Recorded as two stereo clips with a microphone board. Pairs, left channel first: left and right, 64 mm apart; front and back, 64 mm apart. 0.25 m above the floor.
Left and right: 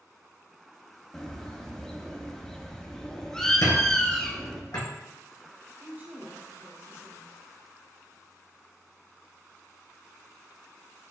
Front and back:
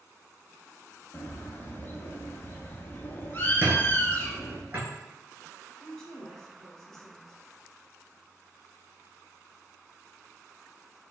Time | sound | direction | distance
1.1 | a bird | 20° left | 0.6 m
3.6 | a squeak | 115° left | 1.6 m
5.8 | a woman speaking | 75° right | 1.3 m